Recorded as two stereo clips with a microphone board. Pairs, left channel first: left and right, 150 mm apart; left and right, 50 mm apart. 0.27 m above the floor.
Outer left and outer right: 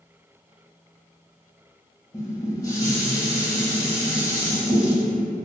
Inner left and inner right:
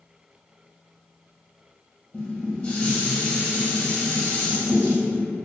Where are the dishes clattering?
25° left (ahead or behind), 0.7 m.